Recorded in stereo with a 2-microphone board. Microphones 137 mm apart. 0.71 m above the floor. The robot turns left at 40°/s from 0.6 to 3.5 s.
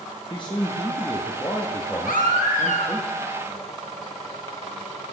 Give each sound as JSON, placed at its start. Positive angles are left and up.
{"t": 0.3, "sound": "a man speaking", "azimuth_deg": 85, "distance_m": 0.9}
{"t": 2.0, "sound": "a baby crying", "azimuth_deg": 85, "distance_m": 1.1}